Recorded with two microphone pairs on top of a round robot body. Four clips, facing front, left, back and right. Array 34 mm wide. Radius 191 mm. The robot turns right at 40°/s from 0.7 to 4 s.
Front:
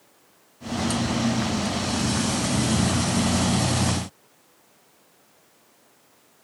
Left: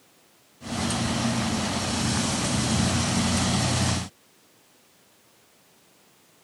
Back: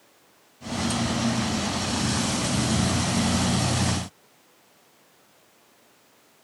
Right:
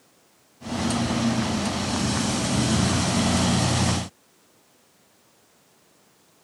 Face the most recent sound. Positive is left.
No sound to turn to.